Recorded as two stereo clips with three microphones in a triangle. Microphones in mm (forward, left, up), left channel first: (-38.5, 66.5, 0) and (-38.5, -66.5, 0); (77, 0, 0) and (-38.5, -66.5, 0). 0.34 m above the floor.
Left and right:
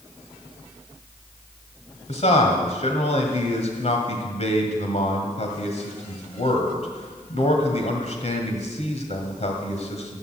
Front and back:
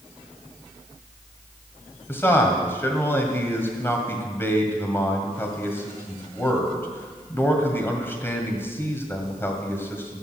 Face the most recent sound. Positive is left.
turn(degrees=100)